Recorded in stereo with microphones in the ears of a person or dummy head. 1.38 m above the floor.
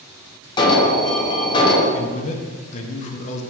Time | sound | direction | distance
0.6 | an alarm | 25° left (ahead or behind) | 1.1 m
1.9 | a man speaking | 40° left (ahead or behind) | 0.9 m